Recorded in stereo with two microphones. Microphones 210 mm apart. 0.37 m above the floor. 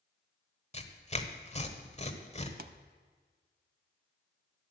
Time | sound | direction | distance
0.7 | tearing paper | 35° left (ahead or behind) | 1.3 m
2.6 | a pop | 55° right (ahead or behind) | 0.6 m